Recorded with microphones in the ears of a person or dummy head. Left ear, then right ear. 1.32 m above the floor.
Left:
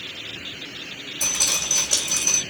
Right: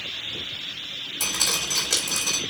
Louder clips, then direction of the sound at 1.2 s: Left 2 dB; 45° right (ahead or behind).